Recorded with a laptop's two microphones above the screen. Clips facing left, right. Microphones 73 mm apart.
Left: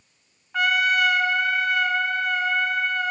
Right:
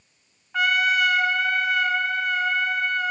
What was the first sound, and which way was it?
A trumpet, centre (ahead or behind).